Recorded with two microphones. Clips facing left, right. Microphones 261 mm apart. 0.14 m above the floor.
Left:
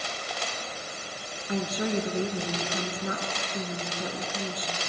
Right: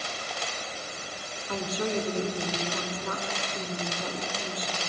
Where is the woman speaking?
15° left (ahead or behind), 1.5 m.